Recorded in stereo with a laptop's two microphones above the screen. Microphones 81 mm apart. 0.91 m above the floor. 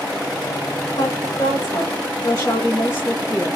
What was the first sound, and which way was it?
A woman speaking, 65° left (ahead or behind).